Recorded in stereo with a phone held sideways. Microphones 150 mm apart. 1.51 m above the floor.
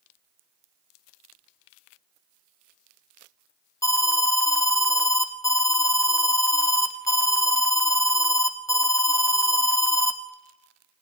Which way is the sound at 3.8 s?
20° left (ahead or behind).